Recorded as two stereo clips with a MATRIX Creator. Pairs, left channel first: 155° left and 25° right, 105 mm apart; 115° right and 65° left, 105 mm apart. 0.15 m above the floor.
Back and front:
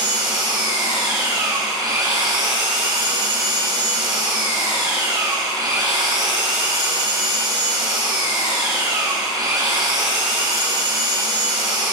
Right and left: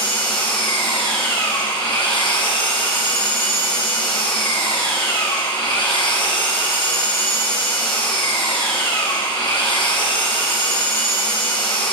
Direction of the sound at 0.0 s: 75° right.